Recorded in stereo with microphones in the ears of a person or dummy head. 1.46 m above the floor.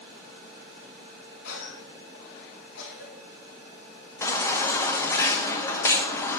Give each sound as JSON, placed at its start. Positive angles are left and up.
{"t": 1.4, "sound": "a cough", "side_deg": 80, "distance_m": 2.0}
{"t": 4.2, "sound": "a baby crying", "side_deg": 10, "distance_m": 0.9}